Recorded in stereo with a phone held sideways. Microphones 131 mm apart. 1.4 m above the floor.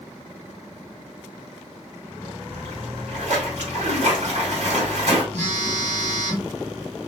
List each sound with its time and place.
2.5 s a splash: 65° right (ahead or behind), 2 m
5.3 s a phone buzzing: 70° right (ahead or behind), 1.4 m